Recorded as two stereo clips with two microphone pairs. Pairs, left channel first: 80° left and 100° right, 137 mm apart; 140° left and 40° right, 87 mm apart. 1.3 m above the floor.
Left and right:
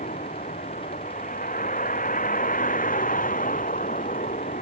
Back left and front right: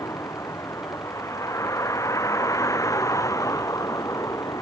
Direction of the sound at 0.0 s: 90° left.